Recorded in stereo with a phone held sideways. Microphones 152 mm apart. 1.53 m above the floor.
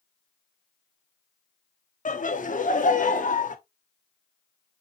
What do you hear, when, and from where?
2.0 s laughter: 55° left (ahead or behind), 0.6 m